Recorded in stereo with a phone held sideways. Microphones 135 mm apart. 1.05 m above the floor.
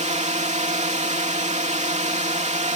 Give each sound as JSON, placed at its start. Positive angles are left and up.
{"t": 0.0, "sound": "a drone", "side_deg": -55}